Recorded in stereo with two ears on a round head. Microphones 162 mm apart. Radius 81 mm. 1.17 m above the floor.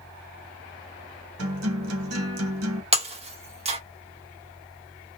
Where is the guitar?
85° right, 0.8 m.